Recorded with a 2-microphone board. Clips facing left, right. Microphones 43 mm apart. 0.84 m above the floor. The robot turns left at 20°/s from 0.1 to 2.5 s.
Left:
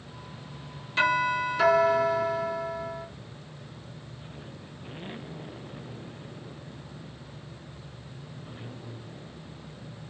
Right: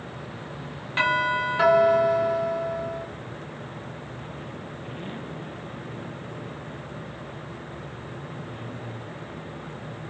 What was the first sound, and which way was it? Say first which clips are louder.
A doorbell: right 2 dB; 115° right.